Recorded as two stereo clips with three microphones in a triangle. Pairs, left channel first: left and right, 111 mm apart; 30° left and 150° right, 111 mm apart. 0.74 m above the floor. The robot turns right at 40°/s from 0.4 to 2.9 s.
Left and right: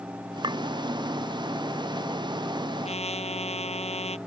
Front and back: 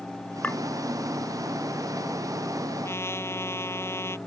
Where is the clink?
45° right; by 0.6 s 40° right.